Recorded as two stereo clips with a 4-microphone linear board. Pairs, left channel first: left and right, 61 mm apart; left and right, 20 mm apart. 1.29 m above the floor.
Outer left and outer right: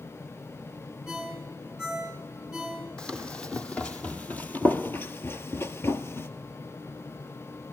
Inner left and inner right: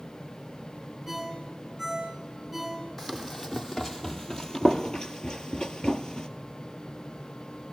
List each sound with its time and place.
1.1 s a ringtone: 10° right (ahead or behind), 8 m
3.0 s running footsteps: 15° left (ahead or behind), 3 m; by 6.3 s 40° left (ahead or behind), 1.8 m